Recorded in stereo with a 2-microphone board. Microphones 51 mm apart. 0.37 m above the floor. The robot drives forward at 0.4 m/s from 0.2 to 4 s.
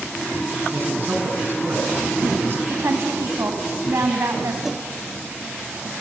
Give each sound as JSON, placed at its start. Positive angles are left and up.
{"t": 0.7, "sound": "a man speaking", "side_deg": -45, "distance_m": 3.5}
{"t": 2.7, "sound": "a woman speaking", "side_deg": -65, "distance_m": 2.5}
{"t": 4.6, "sound": "a whoosh", "side_deg": -5, "distance_m": 0.5}